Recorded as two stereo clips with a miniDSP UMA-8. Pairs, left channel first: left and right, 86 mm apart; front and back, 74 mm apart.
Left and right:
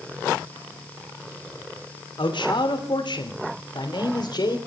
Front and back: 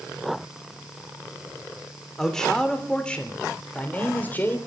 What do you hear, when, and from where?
2.2 s a man speaking: 85° left, 3 m; by 4.6 s 65° left, 3.5 m